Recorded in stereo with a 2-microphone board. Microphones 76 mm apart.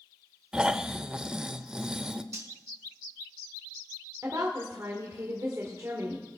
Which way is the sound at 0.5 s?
10° right (ahead or behind).